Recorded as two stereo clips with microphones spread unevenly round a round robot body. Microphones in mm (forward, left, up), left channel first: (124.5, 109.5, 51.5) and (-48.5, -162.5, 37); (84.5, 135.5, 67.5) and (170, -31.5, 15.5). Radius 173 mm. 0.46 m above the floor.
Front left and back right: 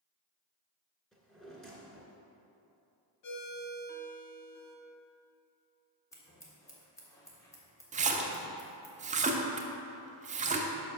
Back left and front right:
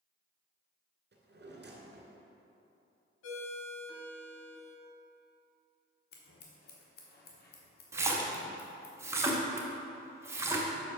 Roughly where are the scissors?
Behind left.